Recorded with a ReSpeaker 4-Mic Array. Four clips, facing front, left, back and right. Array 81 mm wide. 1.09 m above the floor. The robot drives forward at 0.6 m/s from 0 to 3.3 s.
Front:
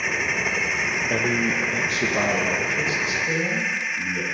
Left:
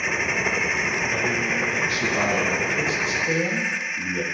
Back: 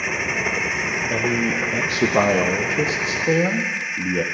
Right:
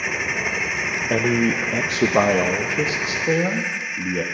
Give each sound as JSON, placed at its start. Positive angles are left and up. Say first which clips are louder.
{"t": 1.1, "sound": "a man speaking", "louder": "right 5 dB, back 2 dB", "azimuth_deg": -85, "distance_m": 0.7}